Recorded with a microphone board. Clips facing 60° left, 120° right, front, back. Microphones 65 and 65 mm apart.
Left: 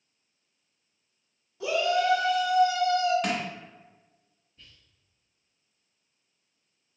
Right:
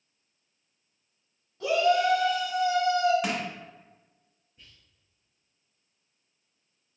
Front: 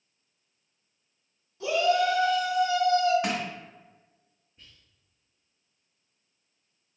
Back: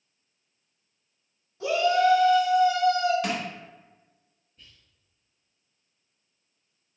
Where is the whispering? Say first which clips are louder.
Left 1 dB, even; 55° right, 1.4 m.